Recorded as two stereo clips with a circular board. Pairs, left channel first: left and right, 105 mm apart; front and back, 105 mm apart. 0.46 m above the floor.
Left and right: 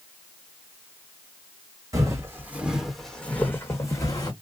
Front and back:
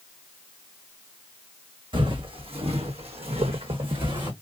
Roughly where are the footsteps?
Behind right.